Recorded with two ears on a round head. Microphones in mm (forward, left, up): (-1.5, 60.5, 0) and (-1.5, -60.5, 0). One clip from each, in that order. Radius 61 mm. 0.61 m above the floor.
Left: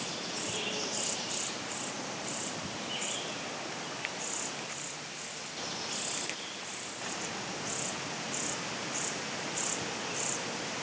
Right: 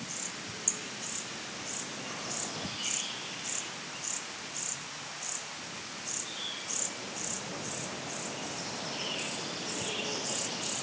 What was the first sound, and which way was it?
Only background noise.